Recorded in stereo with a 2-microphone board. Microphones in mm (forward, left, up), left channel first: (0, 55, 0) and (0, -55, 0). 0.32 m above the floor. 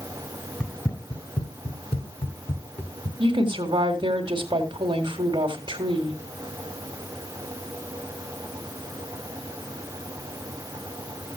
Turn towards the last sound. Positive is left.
turn(degrees=-45)  # may be behind; listen again after turning